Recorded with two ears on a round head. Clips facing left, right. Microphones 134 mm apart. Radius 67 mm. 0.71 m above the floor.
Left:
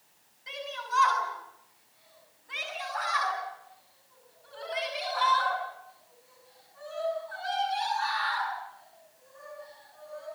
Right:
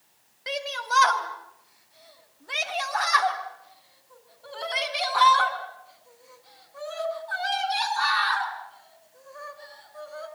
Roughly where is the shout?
Right.